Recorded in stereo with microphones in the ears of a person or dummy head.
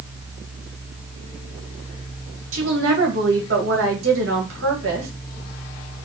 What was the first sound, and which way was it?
A woman speaking, 65° right (ahead or behind).